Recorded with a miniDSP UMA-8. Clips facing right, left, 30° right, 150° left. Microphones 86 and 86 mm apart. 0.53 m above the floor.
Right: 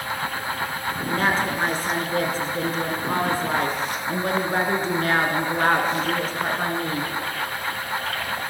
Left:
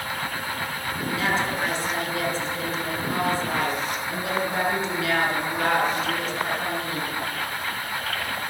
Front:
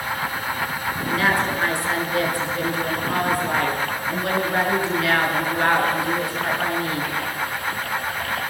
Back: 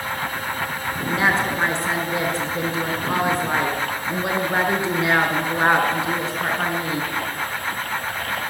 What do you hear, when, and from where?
1.1 s a woman speaking: 140° right, 5.5 m